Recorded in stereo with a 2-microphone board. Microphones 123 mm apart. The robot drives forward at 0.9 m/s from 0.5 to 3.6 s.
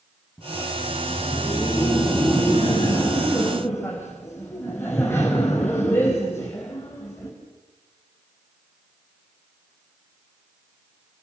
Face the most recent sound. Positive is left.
turn(degrees=20)  # may be behind; listen again after turning